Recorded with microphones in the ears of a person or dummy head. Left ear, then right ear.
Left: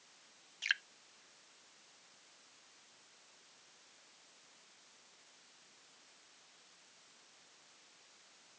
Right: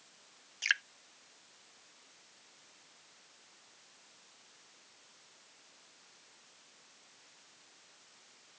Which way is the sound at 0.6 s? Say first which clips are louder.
Right 4 dB; 10° right (ahead or behind).